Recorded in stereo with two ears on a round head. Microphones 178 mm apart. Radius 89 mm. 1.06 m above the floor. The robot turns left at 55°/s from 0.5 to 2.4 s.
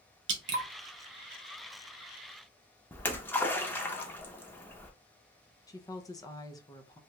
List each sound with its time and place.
0.3 s dripping: 60° right (ahead or behind), 0.8 m
2.9 s a splash: 10° left (ahead or behind), 0.5 m
5.7 s a woman speaking: 20° left (ahead or behind), 0.6 m